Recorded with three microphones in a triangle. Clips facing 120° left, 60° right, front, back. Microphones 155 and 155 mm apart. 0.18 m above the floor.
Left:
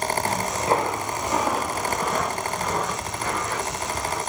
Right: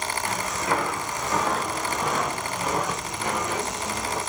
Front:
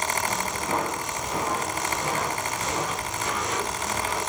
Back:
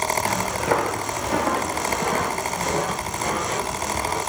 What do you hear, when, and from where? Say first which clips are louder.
0.2 s footsteps: left 2 dB, back 6 dB; 175° left, 2.5 m; by 4.2 s 130° right, 4 m